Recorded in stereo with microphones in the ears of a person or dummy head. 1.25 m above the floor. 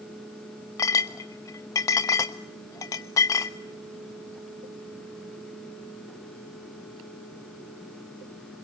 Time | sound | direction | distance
0.8 | a clink | 20° left (ahead or behind) | 1.1 m